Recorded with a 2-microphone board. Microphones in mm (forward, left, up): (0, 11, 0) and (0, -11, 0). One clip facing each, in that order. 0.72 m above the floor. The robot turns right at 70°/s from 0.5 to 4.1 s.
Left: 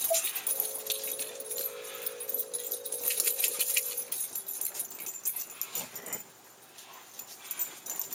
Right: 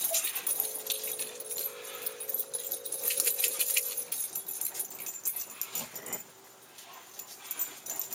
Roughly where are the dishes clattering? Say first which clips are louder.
Left 5 dB; left.